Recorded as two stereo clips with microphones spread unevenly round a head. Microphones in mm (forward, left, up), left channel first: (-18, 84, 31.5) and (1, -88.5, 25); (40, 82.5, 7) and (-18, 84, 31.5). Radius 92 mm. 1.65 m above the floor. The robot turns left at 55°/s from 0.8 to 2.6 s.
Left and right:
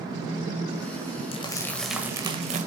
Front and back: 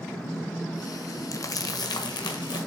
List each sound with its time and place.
1.3 s crumpling: 40° left, 1.5 m; by 2.7 s 30° right, 1.5 m